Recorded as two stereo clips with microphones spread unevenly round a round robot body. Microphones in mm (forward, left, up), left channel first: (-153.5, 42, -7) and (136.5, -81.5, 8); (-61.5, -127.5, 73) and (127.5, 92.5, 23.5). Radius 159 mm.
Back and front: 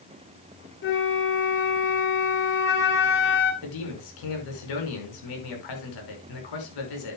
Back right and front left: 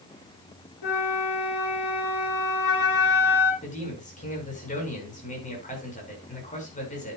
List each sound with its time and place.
0.8 s a flute: 150° right, 2.5 m
3.6 s a man speaking: 160° left, 5.5 m